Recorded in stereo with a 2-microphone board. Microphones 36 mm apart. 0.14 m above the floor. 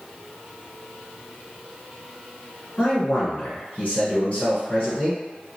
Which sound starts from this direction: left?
A man speaking, at 2.8 s.